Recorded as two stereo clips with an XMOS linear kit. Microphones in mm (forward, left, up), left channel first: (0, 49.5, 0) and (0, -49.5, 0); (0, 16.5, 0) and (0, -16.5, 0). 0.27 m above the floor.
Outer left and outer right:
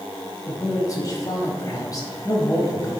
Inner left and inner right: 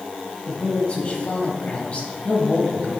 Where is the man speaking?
35° left (ahead or behind), 1.5 m.